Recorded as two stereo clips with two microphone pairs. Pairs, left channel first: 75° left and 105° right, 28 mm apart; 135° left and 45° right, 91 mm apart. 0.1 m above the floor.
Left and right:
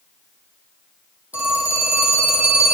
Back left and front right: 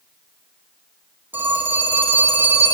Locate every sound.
1.3 s a phone ringing: 110° right, 2.5 m